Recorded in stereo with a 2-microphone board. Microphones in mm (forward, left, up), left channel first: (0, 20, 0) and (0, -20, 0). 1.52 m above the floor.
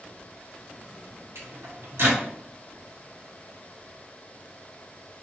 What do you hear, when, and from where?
1.4 s a microwave: 70° right (ahead or behind), 1.0 m